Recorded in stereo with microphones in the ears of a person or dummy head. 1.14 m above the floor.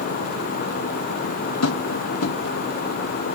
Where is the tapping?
80° left, 1.3 m.